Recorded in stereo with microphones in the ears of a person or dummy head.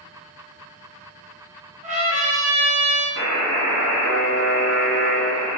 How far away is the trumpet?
About 0.5 m.